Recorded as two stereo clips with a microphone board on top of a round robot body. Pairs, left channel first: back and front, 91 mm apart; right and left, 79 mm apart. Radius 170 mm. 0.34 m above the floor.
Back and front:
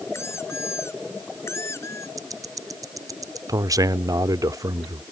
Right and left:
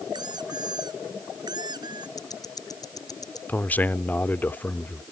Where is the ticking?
50° right.